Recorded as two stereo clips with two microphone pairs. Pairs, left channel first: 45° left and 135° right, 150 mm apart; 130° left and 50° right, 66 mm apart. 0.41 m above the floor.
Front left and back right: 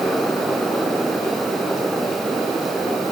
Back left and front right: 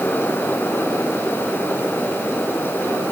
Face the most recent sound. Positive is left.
No sound to turn to.